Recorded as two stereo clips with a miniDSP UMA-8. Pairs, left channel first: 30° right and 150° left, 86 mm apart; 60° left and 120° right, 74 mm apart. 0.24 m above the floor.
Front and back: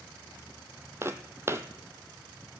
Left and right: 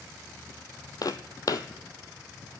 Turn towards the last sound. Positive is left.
turn(degrees=90)